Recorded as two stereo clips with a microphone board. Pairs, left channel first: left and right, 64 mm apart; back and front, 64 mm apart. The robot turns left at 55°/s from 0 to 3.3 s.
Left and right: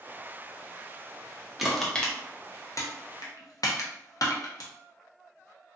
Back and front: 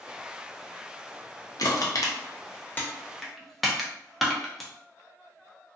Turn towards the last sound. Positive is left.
turn(degrees=90)